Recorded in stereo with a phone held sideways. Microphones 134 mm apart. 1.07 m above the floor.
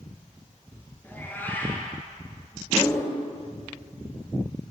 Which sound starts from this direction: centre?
A cat meowing, at 1.0 s.